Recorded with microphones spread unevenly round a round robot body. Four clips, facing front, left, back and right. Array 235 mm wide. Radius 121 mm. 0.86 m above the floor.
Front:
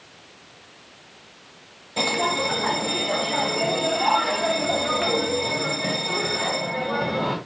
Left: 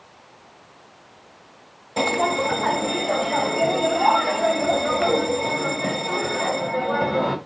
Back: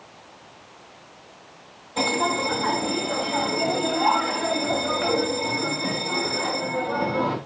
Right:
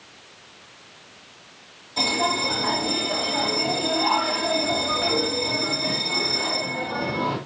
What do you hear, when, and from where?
2.0 s a bell: 75° left, 2.0 m